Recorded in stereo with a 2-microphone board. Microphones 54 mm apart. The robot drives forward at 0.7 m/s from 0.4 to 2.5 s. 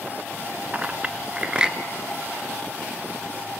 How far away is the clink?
About 0.8 m.